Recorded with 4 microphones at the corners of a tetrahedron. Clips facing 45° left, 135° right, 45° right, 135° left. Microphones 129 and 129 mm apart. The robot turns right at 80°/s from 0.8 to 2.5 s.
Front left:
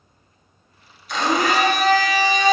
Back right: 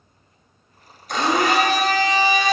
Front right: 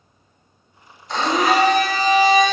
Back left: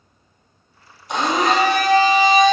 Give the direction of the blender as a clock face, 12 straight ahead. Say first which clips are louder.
Back right 1 dB, even; 5 o'clock.